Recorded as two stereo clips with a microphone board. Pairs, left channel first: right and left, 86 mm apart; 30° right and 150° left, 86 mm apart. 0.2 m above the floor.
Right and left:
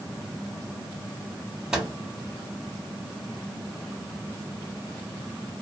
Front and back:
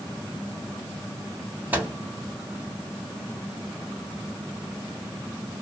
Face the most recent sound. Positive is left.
turn(degrees=155)